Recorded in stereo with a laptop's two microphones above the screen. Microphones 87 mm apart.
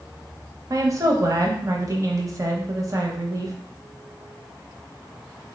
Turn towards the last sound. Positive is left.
turn(degrees=-40)  # may be behind; listen again after turning